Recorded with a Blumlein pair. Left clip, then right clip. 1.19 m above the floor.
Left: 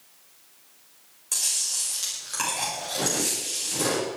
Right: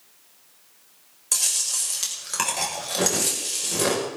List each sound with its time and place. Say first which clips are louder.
1.3 s chewing: right 2 dB; 20° right, 5.5 m